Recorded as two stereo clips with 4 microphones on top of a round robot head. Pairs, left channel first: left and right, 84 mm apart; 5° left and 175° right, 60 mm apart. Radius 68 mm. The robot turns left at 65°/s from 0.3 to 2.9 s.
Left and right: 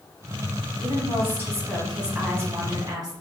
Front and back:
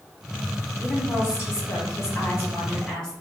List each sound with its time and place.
0.8 s a woman speaking: 60° left, 1.6 m; by 3.1 s 80° right, 1.6 m